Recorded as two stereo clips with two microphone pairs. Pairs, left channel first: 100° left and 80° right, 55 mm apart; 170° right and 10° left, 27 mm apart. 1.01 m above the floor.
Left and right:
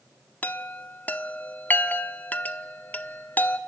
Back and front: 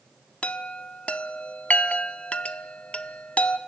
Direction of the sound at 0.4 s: 160° left.